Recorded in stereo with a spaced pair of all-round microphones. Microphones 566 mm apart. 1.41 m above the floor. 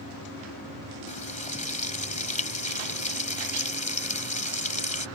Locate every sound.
1.1 s frying: 15° left (ahead or behind)